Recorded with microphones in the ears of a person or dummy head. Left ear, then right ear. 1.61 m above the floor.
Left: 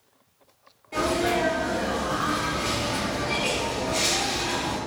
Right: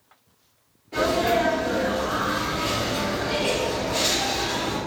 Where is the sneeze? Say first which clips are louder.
Right 3 dB; 10° left (ahead or behind), 0.8 m.